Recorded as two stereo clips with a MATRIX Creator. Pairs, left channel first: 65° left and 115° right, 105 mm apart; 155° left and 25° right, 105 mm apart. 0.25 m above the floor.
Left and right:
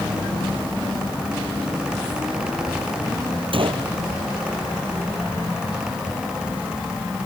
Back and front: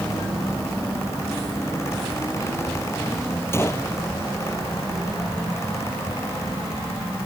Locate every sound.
3.5 s a gunshot: 140° right